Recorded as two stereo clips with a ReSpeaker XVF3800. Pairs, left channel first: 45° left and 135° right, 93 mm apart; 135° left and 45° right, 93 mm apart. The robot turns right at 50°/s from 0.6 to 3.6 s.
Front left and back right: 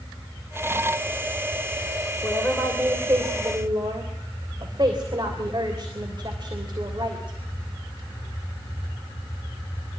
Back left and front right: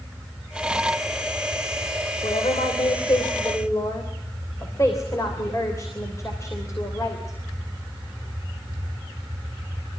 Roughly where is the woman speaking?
Behind left.